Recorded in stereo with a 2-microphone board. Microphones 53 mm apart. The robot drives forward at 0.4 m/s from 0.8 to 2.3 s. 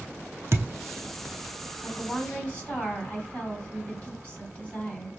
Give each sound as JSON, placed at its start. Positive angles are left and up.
{"t": 0.5, "sound": "a thud", "side_deg": -60, "distance_m": 0.6}
{"t": 1.8, "sound": "a woman speaking", "side_deg": 30, "distance_m": 2.5}